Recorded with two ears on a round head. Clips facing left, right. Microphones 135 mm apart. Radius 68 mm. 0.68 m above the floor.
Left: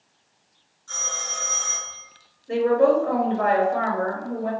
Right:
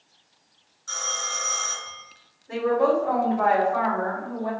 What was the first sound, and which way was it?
A phone ringing, 75° right (ahead or behind).